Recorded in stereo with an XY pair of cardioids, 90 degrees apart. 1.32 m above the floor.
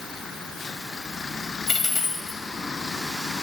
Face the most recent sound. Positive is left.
turn(degrees=35)